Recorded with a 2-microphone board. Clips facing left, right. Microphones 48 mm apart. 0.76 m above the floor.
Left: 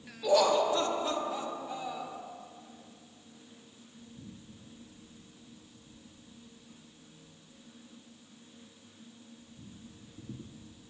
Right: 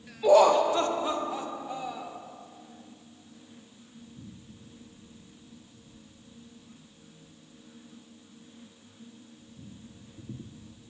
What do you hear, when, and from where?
0.2 s laughter: 35° right (ahead or behind), 0.7 m; by 2.2 s 5° right (ahead or behind), 1.9 m